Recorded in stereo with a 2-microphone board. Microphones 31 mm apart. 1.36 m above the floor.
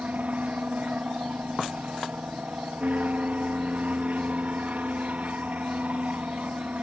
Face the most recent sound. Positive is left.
turn(degrees=-60)  # may be behind; listen again after turning